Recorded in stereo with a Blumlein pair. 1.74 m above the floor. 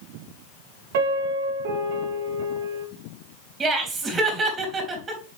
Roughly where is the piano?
Ahead right.